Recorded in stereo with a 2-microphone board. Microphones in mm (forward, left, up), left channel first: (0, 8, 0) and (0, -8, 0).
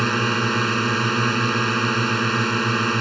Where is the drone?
5° left (ahead or behind).